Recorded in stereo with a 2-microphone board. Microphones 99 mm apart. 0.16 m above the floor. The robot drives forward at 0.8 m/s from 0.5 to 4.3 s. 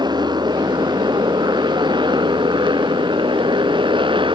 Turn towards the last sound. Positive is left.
turn(degrees=-55)  # may be behind; listen again after turning